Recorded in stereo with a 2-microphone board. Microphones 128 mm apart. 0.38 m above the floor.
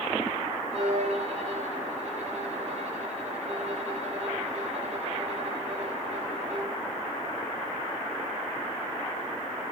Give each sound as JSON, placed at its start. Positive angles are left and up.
{"t": 0.7, "sound": "a violin", "side_deg": -55, "distance_m": 8.0}